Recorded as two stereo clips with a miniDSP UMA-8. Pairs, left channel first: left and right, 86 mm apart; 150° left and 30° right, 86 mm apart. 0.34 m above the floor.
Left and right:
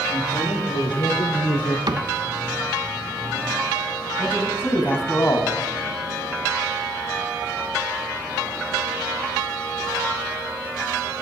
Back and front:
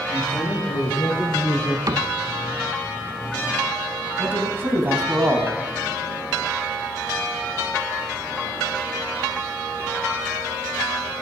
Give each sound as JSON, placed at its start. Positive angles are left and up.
{"t": 0.1, "sound": "a man speaking", "azimuth_deg": 70, "distance_m": 7.0}
{"t": 1.9, "sound": "a cupboard door", "azimuth_deg": -65, "distance_m": 0.8}
{"t": 4.2, "sound": "a man speaking", "azimuth_deg": 30, "distance_m": 3.0}